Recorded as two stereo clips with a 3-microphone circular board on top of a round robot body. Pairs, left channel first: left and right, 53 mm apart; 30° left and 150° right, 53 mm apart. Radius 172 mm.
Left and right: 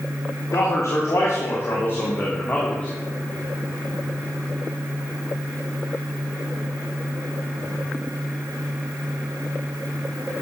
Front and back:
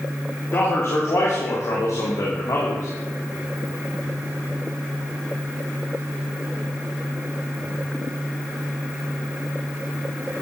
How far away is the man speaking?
About 3.5 m.